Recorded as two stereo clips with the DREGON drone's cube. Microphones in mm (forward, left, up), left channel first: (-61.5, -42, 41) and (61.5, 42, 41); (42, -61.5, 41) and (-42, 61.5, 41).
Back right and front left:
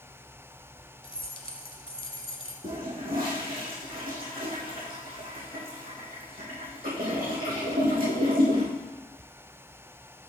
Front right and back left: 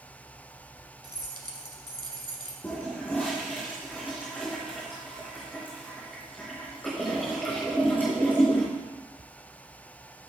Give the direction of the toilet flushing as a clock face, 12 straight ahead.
11 o'clock.